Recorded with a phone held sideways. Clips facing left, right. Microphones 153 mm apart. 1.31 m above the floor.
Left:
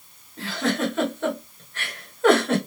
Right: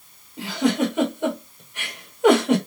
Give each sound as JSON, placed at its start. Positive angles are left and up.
{"t": 0.4, "sound": "a giggle", "side_deg": -15, "distance_m": 1.8}